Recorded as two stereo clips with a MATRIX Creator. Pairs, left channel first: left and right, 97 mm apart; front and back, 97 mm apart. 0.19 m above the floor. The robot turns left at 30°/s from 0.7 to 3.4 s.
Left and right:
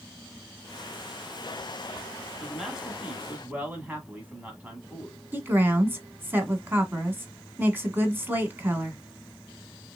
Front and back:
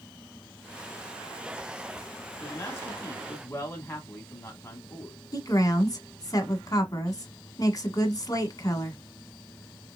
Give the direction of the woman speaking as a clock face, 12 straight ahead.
1 o'clock.